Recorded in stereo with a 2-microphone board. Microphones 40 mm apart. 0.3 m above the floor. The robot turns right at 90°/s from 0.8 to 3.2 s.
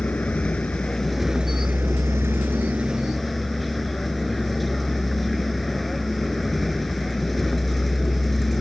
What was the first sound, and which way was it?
A vehicle, 145° left.